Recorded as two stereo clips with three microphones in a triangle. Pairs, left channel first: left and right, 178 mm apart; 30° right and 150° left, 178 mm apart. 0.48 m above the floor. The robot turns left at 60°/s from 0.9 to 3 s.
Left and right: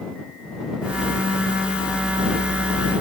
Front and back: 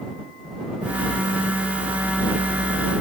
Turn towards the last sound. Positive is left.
No sound to turn to.